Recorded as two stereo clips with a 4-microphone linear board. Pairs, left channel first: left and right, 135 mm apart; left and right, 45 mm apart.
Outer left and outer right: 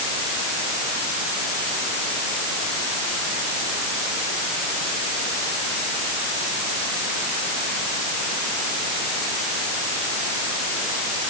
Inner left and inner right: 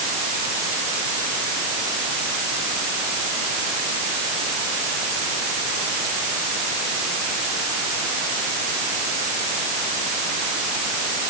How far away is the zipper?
No zipper in this recording.